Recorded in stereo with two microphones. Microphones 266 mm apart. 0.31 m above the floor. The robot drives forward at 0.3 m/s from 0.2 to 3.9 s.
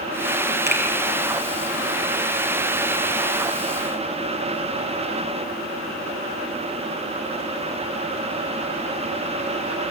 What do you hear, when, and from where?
0.7 s a finger snap: 40° right (ahead or behind), 7 m